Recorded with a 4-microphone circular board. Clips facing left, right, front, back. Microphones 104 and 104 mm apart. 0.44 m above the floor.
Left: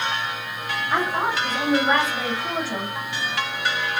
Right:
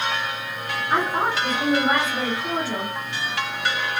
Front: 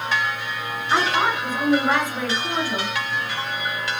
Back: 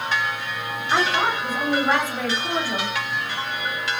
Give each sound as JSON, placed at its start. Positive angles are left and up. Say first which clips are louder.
{"t": 0.9, "sound": "a woman speaking", "louder": "right 1 dB, front 1 dB", "azimuth_deg": -65, "distance_m": 1.5}